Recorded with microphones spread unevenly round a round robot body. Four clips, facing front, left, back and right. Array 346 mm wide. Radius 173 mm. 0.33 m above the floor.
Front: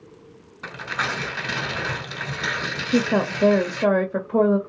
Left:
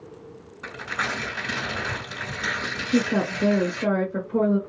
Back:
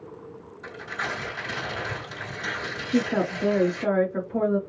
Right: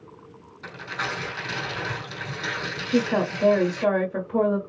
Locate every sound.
0.6 s tearing paper: 15° left, 2.5 m
2.9 s a woman speaking: 10° right, 1.6 m